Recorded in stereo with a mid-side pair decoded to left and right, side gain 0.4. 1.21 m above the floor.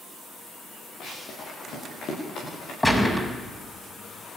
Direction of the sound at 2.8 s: 15° left.